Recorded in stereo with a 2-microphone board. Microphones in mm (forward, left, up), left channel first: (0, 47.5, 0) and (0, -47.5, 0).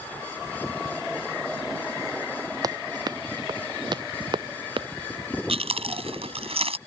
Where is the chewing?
85° right.